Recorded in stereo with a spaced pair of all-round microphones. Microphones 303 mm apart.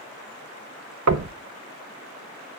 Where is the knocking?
60° right (ahead or behind), 0.6 m.